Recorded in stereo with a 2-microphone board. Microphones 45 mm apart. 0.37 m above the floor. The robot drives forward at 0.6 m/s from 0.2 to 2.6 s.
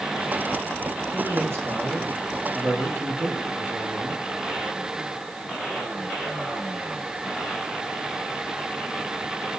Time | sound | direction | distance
1.1 | a man speaking | 55° right (ahead or behind) | 10 m